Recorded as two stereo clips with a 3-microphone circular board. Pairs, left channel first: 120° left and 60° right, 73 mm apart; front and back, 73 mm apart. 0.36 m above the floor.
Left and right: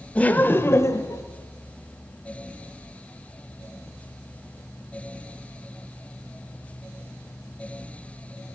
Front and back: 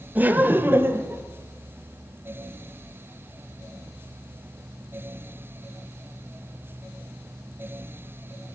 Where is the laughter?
165° left, 0.8 m; by 1.2 s 135° left, 1.2 m.